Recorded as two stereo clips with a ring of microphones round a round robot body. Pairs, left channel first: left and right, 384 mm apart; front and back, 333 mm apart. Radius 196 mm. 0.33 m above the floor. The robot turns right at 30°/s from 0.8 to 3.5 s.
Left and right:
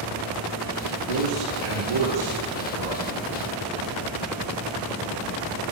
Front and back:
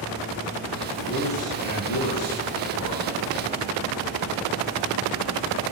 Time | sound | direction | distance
1.1 | a man speaking | 80° right | 8 m